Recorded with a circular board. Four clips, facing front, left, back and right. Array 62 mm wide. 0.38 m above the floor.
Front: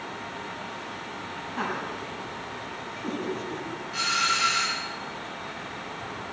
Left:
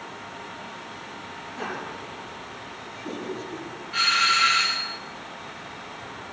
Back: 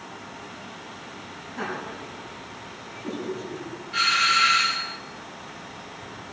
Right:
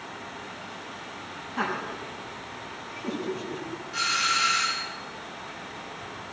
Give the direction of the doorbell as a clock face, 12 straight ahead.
8 o'clock.